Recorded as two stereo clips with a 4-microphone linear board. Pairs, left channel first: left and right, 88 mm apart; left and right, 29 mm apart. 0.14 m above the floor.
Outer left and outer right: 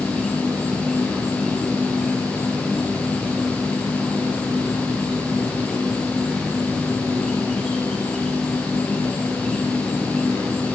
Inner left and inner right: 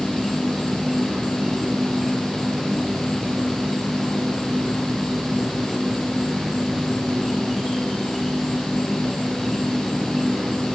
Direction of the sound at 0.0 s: 5° left (ahead or behind).